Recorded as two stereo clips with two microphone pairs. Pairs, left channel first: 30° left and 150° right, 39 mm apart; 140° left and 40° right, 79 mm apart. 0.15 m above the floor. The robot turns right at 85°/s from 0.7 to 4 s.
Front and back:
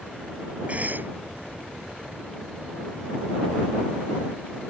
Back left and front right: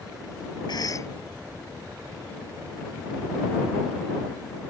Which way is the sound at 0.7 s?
155° left.